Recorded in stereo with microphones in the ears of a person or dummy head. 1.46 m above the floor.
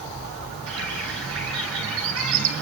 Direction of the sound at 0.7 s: 70° right (ahead or behind).